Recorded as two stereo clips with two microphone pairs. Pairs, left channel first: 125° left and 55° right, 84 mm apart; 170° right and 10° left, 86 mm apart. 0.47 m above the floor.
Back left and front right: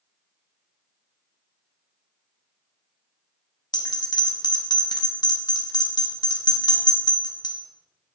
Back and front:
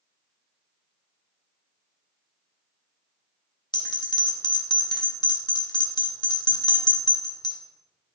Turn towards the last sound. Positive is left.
turn(degrees=155)